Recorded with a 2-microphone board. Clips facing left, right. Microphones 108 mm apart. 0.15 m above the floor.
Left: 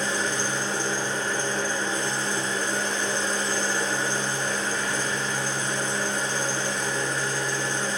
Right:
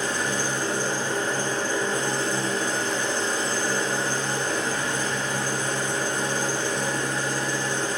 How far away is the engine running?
About 1.8 m.